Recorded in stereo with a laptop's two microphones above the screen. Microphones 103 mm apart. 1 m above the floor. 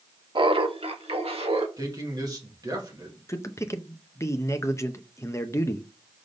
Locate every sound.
0.3 s laughter: 55° right (ahead or behind), 1.0 m; by 1.7 s 70° right (ahead or behind), 1.8 m
1.8 s a man speaking: 40° right (ahead or behind), 1.8 m
3.3 s a man speaking: 30° left (ahead or behind), 0.6 m